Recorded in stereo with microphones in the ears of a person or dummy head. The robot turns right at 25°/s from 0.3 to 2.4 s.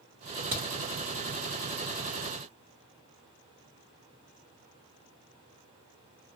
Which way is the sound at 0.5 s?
40° right (ahead or behind).